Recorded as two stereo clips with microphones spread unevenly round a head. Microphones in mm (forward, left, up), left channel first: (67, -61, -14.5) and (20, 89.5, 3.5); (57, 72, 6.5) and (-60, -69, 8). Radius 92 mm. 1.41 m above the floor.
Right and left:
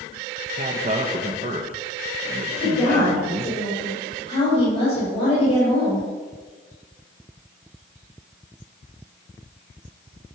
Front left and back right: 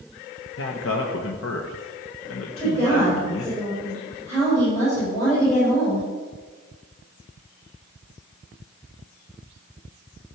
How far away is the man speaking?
About 1.2 m.